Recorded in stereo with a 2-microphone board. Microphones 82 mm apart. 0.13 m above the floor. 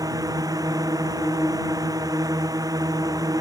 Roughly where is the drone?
Right.